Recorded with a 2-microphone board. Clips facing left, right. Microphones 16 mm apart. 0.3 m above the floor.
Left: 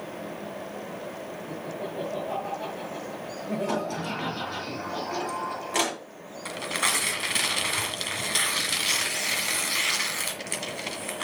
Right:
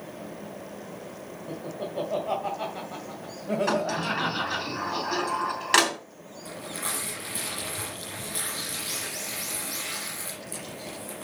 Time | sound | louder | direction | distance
1.5 | laughter | right 2 dB | 35° right (ahead or behind) | 2.0 m
3.7 | a sliding door | right 3 dB | 70° right (ahead or behind) | 4 m
6.5 | tearing paper | left 8 dB | 55° left (ahead or behind) | 1.6 m